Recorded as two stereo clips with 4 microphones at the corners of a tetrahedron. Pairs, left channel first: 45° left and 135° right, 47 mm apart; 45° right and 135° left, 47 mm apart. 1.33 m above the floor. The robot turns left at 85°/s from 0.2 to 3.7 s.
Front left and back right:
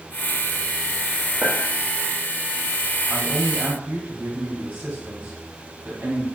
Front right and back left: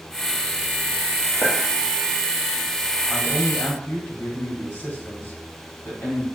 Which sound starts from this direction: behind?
A clink, at 1.4 s.